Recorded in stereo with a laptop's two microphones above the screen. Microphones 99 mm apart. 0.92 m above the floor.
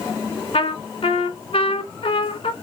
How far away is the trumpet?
About 1.8 m.